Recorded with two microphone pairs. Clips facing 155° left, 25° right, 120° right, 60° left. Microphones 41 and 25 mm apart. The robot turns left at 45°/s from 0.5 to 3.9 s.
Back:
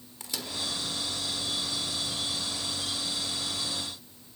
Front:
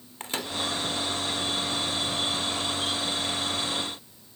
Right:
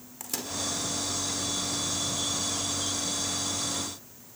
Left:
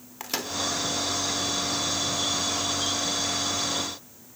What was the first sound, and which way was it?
A microwave, 15° left.